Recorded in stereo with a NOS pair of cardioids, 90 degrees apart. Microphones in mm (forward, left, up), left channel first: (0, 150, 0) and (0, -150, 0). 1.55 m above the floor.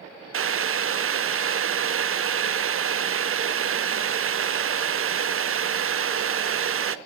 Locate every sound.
0.3 s boiling: 45° right, 1.0 m